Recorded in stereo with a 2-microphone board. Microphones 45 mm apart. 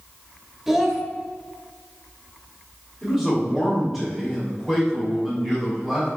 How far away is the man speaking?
About 3 m.